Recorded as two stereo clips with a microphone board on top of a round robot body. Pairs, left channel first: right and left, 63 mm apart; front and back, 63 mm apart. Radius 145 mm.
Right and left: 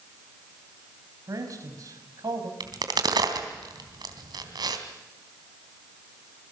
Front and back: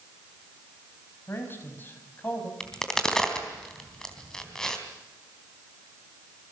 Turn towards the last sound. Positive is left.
turn(degrees=80)